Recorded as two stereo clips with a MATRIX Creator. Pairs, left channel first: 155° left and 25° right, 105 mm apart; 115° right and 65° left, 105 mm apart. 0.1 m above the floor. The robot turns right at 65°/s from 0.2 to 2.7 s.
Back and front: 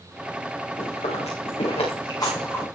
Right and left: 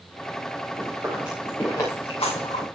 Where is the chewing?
120° left, 8 m; by 2.6 s 120° right, 8 m.